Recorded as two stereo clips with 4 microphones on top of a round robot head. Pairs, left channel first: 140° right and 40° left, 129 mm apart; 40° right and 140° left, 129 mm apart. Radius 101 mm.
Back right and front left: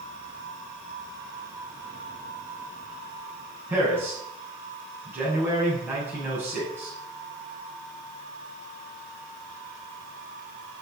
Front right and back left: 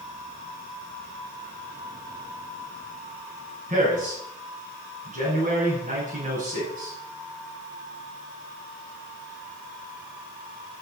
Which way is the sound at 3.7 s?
110° left.